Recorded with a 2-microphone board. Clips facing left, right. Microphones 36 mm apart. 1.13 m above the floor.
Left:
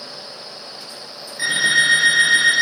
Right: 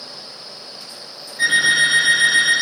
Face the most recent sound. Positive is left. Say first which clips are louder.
# right 2 dB
turn(degrees=-50)  # may be behind; listen again after turning